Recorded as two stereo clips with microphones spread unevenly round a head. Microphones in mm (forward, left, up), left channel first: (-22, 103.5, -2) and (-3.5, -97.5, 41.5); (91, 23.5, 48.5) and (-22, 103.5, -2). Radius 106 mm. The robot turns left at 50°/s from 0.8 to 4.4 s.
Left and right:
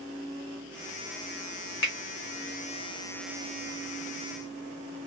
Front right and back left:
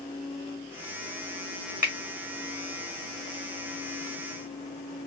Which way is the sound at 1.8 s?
60° left.